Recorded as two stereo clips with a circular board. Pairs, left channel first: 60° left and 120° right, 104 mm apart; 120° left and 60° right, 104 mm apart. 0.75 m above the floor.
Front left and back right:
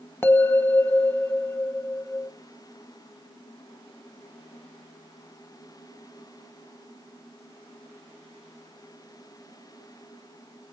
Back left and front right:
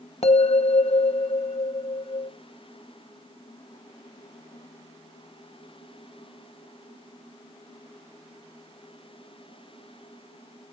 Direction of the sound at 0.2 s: 130° left.